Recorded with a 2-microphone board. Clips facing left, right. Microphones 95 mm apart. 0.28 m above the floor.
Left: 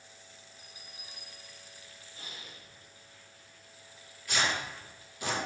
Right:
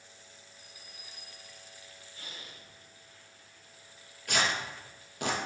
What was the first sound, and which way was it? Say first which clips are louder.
A bell: left 1 dB; 25° left (ahead or behind).